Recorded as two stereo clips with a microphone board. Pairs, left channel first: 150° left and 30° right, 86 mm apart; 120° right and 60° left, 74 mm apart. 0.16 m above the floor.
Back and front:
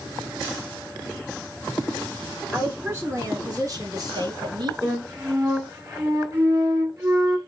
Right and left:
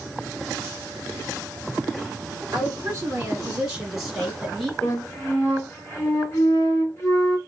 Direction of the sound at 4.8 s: 75° right.